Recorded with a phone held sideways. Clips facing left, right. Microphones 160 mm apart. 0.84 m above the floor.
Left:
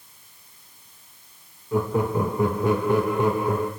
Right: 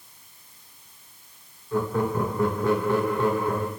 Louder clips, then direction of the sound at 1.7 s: Left 2 dB; 15° left (ahead or behind).